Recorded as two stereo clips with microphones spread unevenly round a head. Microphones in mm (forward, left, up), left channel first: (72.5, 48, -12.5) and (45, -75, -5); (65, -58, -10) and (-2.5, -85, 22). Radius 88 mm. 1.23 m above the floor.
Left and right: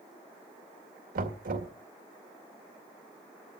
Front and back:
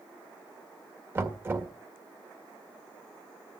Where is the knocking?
100° right, 1.9 m.